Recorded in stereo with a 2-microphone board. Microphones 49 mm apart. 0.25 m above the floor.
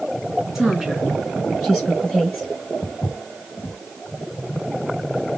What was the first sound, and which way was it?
A woman speaking, 10° right (ahead or behind).